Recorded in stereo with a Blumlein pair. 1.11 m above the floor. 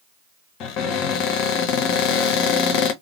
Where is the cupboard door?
35° left, 0.8 m.